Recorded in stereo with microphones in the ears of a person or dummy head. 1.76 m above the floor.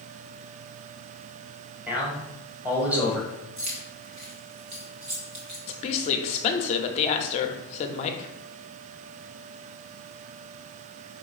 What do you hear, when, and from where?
1.9 s a man speaking: 10° right (ahead or behind), 1.4 m
3.6 s keys jangling: 25° right (ahead or behind), 0.7 m
5.7 s a woman speaking: 35° left (ahead or behind), 0.6 m